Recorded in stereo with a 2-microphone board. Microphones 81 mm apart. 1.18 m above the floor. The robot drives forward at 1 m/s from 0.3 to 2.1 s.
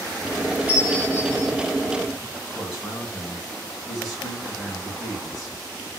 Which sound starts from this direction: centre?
A man speaking, at 2.5 s.